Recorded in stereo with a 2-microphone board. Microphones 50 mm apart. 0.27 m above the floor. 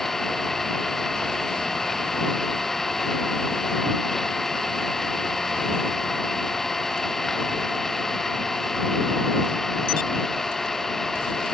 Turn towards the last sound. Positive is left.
turn(degrees=5)  # may be behind; listen again after turning